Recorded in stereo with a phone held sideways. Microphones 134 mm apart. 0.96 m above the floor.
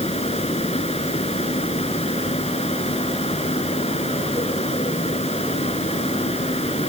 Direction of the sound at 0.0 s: 50° left (ahead or behind).